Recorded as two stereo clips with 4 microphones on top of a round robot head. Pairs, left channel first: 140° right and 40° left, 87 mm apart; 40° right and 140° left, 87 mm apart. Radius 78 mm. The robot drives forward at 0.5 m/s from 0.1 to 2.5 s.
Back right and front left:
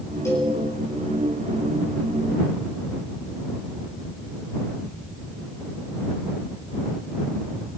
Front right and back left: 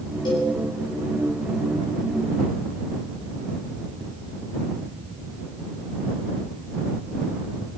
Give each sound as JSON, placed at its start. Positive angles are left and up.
{"t": 0.2, "sound": "a cowbell", "azimuth_deg": -80, "distance_m": 8.5}